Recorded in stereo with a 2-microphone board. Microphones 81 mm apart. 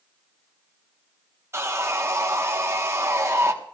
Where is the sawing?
35° right (ahead or behind), 1.0 m.